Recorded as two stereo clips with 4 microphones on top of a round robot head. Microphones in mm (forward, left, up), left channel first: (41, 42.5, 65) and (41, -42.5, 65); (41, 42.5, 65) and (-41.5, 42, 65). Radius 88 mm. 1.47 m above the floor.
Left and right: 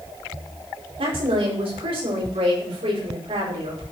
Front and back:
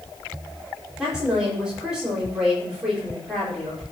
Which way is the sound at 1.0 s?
95° right.